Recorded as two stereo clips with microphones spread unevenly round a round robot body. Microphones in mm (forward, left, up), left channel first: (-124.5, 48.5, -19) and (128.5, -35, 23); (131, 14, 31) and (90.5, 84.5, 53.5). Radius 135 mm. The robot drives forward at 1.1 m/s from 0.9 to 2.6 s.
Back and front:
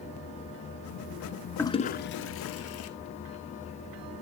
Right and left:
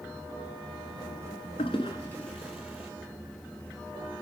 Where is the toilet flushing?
110° right, 0.7 m; by 2.9 s 155° right, 1.5 m.